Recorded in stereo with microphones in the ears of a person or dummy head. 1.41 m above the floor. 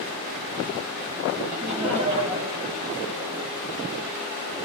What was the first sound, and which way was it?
Laughter, 45° right (ahead or behind).